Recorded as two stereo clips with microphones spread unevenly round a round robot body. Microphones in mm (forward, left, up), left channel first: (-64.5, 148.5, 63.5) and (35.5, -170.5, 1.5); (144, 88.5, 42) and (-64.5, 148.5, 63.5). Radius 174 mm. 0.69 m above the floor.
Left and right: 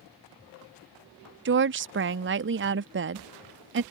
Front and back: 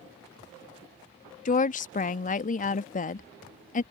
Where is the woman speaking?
50° right.